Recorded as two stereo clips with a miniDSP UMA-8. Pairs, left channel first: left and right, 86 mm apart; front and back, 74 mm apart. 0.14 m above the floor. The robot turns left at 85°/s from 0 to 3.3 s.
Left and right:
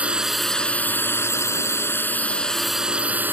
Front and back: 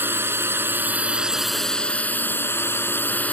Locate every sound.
0.0 s a drone: 150° right; by 3.3 s 50° right